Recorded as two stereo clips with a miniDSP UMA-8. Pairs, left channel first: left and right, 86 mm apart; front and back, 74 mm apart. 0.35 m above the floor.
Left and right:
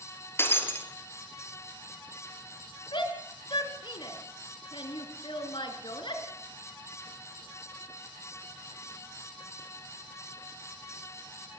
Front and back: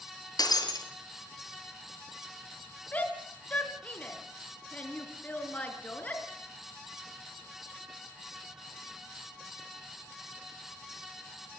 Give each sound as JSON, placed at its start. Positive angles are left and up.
{"t": 0.4, "sound": "breaking glass", "azimuth_deg": 30, "distance_m": 4.0}
{"t": 2.9, "sound": "a shout", "azimuth_deg": 70, "distance_m": 5.5}